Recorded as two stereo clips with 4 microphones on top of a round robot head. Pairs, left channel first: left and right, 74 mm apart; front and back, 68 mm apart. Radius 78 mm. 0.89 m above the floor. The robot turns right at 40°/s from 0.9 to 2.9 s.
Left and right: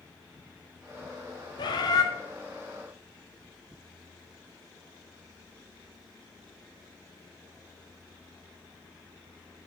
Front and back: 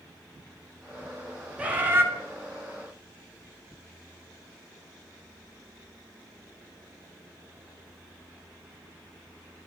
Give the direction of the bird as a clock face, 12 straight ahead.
8 o'clock.